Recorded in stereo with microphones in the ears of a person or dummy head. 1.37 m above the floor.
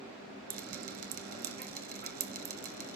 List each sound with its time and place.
0.5 s dripping: 50° right (ahead or behind), 1.2 m